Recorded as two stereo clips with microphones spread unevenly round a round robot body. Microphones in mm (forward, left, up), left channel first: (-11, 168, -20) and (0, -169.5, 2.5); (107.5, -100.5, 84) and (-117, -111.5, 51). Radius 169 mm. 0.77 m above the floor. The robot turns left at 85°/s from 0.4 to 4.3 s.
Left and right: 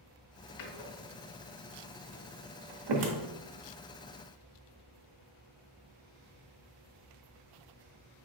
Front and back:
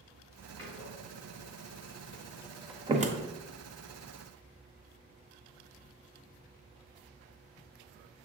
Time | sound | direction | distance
0.6 | a door slam | 85° left | 0.9 m